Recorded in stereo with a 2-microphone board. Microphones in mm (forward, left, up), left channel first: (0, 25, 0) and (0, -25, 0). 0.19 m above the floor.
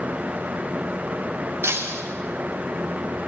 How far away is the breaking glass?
About 5.5 m.